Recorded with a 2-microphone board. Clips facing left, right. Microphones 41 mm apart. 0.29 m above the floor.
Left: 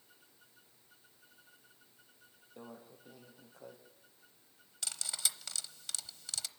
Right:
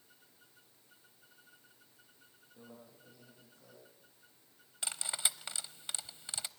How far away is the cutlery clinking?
About 0.8 m.